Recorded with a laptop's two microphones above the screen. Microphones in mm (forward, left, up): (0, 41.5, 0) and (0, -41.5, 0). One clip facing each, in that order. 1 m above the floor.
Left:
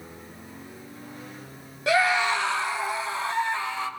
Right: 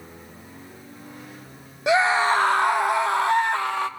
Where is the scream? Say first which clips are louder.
Right 3 dB; 20° right (ahead or behind), 1.3 m; by 3.9 s 60° right (ahead or behind), 2.5 m.